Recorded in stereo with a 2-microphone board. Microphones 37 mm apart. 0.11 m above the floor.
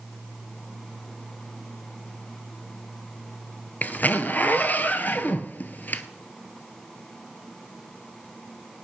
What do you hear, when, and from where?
3.8 s a zipper: 55° left (ahead or behind), 0.7 m